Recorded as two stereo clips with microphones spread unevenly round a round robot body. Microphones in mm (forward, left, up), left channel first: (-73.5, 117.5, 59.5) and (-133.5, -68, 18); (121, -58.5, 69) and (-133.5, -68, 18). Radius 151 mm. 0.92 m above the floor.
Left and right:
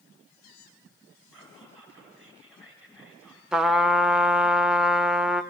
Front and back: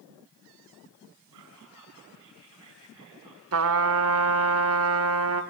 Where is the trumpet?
150° left, 0.7 m.